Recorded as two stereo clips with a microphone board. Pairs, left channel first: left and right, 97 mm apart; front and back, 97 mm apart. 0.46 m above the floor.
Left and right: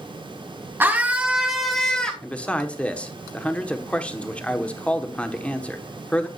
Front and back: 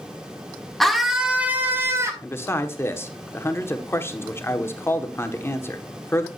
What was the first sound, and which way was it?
A scream, 85° right.